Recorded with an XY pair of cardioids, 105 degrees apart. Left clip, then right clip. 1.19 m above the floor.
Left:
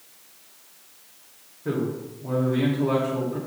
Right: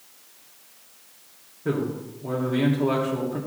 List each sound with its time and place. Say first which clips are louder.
1.6 s a man speaking: right 1 dB; 20° right, 3 m